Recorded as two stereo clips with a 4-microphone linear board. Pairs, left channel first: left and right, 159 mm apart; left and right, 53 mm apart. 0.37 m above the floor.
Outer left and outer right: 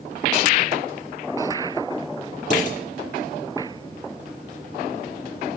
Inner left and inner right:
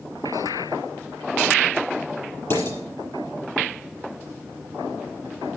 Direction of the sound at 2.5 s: 50° left (ahead or behind).